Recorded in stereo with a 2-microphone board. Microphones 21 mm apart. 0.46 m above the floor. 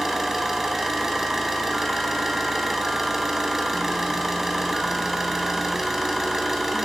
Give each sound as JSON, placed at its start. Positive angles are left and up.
{"t": 0.0, "sound": "an engine running", "side_deg": -10, "distance_m": 3.0}